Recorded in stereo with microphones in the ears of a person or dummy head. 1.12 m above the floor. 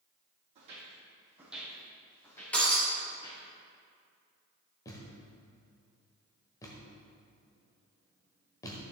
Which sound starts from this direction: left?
A thud, at 4.8 s.